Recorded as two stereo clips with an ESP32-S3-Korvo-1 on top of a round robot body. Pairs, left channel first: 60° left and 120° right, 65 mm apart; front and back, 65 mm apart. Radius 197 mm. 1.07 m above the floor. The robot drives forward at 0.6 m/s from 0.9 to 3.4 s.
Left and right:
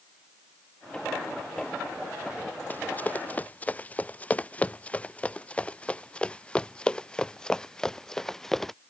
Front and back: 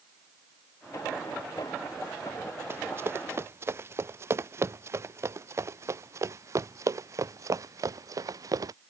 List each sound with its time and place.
2.7 s running footsteps: 125° left; by 8.8 s 145° left